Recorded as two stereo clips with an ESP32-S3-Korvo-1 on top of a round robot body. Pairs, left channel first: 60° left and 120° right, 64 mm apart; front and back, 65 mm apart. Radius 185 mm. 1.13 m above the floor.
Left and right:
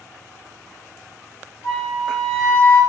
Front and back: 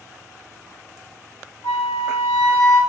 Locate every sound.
1.6 s a flute: 10° left, 1.3 m